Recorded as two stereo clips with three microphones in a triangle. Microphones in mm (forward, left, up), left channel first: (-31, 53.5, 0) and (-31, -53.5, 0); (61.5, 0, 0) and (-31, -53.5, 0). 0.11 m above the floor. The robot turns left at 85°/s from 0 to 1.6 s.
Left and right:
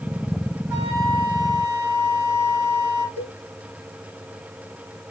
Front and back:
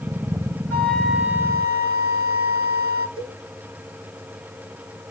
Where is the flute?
30° right, 1.1 m; by 3.1 s 105° right, 1.1 m.